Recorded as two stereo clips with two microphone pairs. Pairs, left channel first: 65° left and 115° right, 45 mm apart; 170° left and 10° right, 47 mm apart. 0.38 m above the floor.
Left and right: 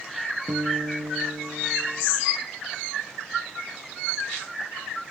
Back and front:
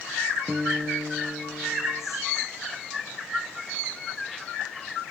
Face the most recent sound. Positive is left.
turn(degrees=-75)